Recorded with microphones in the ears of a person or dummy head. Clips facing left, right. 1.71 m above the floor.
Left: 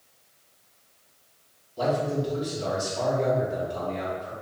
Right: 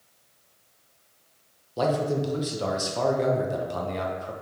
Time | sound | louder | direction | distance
1.8 | a man speaking | right 1 dB | 70° right (ahead or behind) | 0.9 m